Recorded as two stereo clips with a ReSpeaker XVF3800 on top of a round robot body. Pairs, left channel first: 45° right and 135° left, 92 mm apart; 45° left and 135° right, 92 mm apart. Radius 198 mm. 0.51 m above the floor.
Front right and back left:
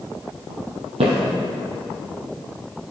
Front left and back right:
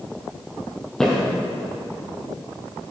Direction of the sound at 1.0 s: 130° left.